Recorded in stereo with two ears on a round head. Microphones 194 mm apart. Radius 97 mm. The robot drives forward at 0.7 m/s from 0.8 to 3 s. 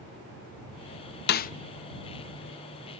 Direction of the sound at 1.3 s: 50° left (ahead or behind).